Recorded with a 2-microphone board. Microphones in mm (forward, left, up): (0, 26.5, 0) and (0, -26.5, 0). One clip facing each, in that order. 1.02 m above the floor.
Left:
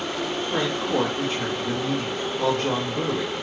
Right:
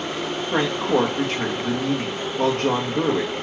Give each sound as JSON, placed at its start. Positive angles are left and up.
{"t": 0.5, "sound": "a woman speaking", "side_deg": -65, "distance_m": 1.7}